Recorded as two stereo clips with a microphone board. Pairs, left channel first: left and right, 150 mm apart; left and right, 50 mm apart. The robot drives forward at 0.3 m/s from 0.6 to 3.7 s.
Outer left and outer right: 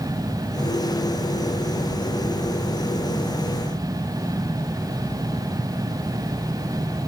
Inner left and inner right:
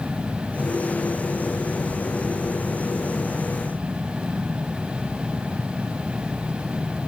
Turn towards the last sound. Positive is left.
No sound to turn to.